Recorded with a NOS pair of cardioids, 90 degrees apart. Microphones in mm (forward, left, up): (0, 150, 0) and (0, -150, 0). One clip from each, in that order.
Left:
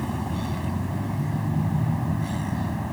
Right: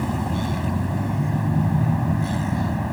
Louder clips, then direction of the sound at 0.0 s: Right 4 dB; 30° right.